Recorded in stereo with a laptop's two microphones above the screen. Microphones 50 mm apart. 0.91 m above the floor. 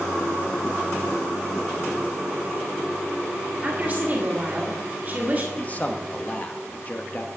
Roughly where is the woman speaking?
Right.